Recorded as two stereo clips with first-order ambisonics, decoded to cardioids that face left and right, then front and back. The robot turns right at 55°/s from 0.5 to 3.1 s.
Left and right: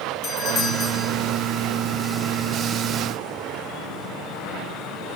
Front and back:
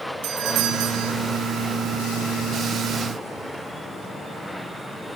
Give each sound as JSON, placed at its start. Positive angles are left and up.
{"t": 0.2, "sound": "a doorbell", "azimuth_deg": 150, "distance_m": 1.9}